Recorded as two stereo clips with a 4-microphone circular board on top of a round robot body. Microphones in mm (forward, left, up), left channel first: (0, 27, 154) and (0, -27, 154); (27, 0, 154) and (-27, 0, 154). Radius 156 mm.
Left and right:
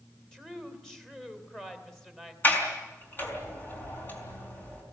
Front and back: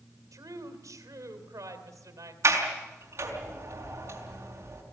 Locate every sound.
0.3 s a woman speaking: 175° left, 3.5 m
2.4 s a sliding door: 150° left, 5 m